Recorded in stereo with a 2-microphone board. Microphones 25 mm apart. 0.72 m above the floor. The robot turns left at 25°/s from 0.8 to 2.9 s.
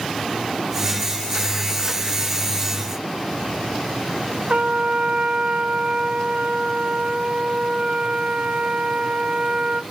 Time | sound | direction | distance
4.5 | a trumpet | 60° right (ahead or behind) | 0.8 m